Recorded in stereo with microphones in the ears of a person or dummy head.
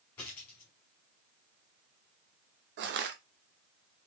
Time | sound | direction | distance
0.2 | a dropped coin | 10° left (ahead or behind) | 1.5 m
2.8 | crushing | 55° right (ahead or behind) | 0.7 m